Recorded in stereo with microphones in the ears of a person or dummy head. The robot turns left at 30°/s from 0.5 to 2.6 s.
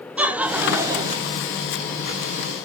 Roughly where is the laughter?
Centre.